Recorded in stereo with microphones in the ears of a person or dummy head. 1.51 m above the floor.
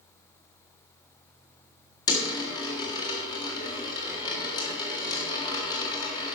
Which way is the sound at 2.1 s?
15° left (ahead or behind).